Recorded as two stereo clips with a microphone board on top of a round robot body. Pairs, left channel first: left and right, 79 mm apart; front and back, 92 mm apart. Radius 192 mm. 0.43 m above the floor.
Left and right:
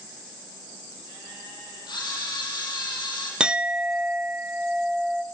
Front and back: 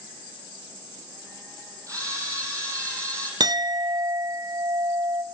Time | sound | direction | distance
1.9 | a camera shutter | 125° left | 7.5 m
3.4 | a clink | 165° right | 0.8 m